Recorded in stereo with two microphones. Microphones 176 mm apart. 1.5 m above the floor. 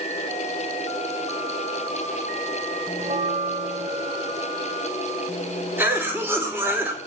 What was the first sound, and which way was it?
A bell, 40° right (ahead or behind).